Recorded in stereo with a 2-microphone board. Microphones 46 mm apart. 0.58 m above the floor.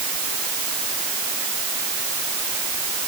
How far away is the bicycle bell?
I don't hear a bicycle bell.